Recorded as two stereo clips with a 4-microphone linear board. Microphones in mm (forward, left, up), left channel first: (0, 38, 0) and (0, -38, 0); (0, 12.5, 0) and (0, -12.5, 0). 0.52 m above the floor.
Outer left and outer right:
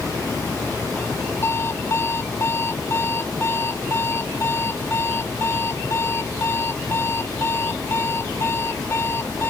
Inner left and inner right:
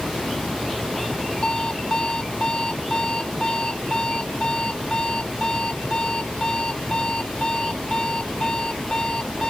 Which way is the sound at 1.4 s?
35° left (ahead or behind).